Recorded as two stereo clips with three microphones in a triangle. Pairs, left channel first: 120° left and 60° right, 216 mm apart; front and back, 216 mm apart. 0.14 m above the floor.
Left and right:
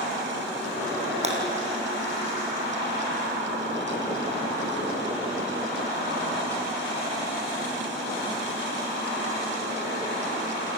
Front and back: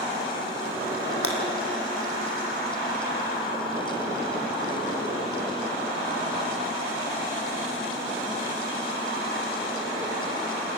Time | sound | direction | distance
1.2 | breaking glass | straight ahead | 3 m